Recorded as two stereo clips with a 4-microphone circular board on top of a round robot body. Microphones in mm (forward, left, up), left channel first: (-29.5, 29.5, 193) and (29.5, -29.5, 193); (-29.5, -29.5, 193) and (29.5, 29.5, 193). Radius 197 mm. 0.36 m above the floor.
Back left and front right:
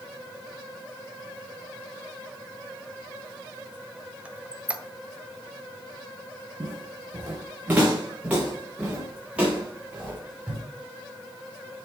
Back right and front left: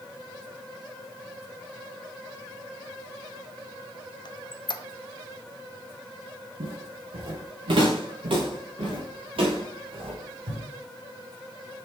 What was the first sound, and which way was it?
A squeak, 120° right.